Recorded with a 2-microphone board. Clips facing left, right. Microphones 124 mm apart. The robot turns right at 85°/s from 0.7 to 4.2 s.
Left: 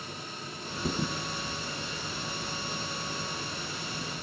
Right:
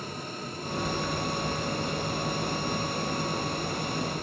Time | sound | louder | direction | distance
0.8 | a thud | left 1 dB | 50° left (ahead or behind) | 1.0 m